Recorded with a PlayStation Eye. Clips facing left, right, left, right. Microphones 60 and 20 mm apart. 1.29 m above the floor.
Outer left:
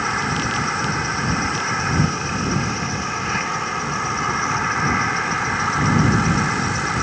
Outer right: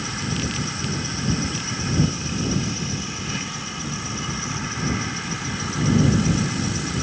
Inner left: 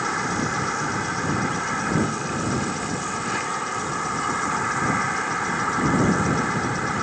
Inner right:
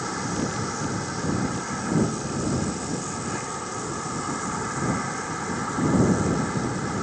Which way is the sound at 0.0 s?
50° left (ahead or behind).